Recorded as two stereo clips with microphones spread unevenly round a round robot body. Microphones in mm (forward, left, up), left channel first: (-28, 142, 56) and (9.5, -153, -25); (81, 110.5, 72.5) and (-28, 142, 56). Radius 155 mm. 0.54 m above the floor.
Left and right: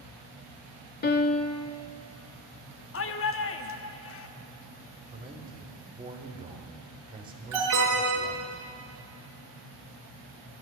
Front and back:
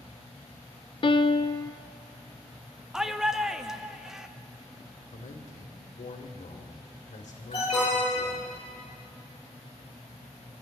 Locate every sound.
1.0 s a piano: 35° left, 0.7 m
2.9 s a shout: 105° left, 0.8 m
5.1 s a man speaking: 15° right, 1.9 m
7.5 s an alarm: 70° right, 6 m